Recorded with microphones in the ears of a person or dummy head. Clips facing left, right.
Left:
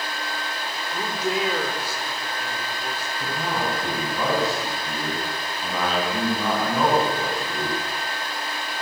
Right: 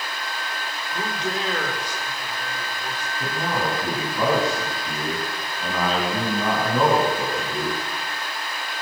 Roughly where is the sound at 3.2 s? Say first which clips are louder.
Right 2 dB; centre.